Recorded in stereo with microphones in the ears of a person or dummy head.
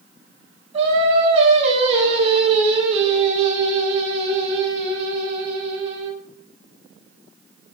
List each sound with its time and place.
0.7 s singing: 35° right (ahead or behind), 4 m